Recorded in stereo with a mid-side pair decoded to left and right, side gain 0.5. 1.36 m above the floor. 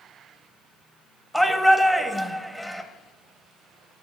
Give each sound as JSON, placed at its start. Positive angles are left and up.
{"t": 1.3, "sound": "a shout", "azimuth_deg": 5, "distance_m": 0.9}